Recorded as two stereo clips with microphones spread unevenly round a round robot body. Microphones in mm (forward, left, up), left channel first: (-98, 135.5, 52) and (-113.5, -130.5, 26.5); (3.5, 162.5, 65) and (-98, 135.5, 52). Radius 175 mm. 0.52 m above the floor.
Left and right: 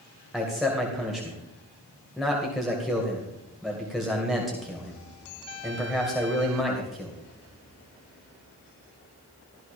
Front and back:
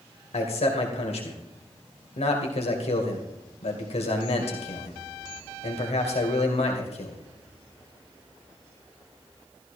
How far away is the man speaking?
About 2 m.